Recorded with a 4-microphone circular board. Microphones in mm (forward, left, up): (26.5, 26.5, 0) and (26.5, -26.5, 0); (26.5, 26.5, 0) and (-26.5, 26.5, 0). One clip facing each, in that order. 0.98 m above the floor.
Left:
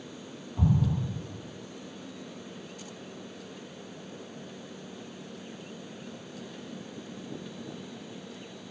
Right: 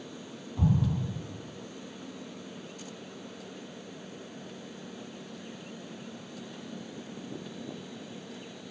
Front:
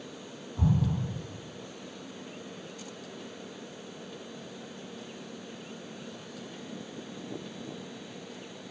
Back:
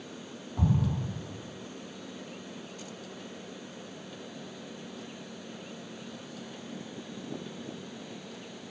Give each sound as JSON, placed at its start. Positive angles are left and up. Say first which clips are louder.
{"t": 0.6, "sound": "an explosion", "louder": "left 1 dB, front 1 dB", "azimuth_deg": 155, "distance_m": 0.6}